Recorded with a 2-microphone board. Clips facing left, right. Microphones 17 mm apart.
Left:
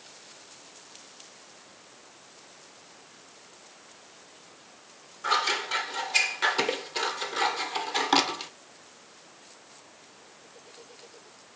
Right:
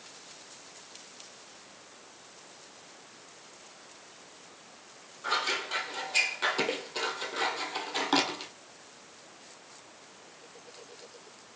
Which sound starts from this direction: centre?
Scissors, at 5.2 s.